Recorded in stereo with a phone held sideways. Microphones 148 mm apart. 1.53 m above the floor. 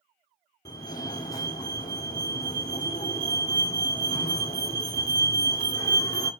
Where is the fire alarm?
25° left (ahead or behind), 1.8 m.